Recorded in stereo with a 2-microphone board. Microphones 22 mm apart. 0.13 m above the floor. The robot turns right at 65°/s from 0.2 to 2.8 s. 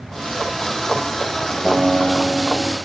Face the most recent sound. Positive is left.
turn(degrees=-105)